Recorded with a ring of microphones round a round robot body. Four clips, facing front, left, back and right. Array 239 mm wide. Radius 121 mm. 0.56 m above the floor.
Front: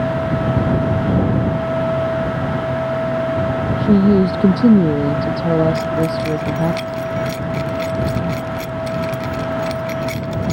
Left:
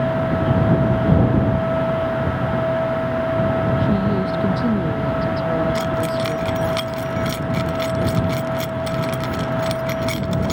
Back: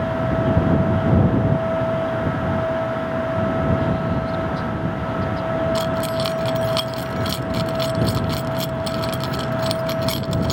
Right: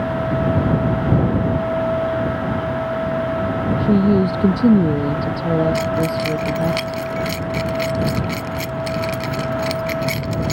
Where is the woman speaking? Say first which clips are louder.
Right 4 dB, front 9 dB; 25° right.